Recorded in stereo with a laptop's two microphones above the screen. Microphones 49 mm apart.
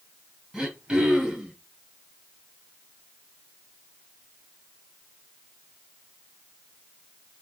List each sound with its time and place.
0.5 s throat clearing: 10° right (ahead or behind), 2 m